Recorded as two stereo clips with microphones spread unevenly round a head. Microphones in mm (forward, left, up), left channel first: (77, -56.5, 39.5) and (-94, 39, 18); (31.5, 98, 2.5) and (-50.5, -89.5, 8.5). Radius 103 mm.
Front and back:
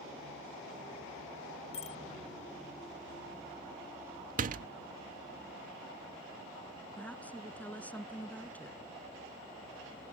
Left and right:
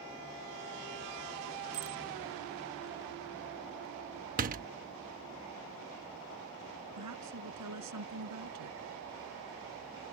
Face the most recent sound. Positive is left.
turn(degrees=-110)